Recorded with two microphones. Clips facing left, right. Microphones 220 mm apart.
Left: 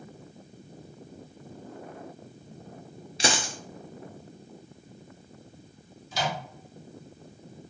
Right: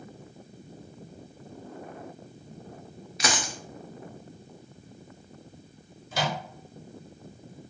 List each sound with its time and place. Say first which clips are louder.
3.2 s a dropped coin: left 2 dB; 30° left (ahead or behind), 0.5 m
6.1 s a microwave: right 1 dB; 55° right (ahead or behind), 1.1 m